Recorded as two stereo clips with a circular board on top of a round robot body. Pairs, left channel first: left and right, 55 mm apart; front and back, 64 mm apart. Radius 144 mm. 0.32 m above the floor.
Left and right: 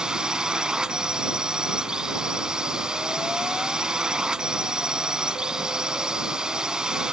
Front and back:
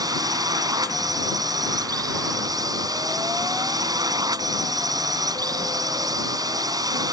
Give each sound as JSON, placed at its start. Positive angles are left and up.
{"t": 0.0, "sound": "a drone", "azimuth_deg": -170}